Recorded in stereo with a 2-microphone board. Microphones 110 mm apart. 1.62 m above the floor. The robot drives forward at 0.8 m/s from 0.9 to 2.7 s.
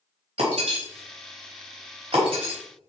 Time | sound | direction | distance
0.4 | breaking glass | 65° right (ahead or behind) | 3 m